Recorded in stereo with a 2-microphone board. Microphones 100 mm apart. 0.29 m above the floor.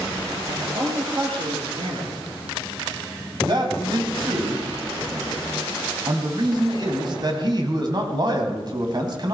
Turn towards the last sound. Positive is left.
turn(degrees=-45)  # may be behind; listen again after turning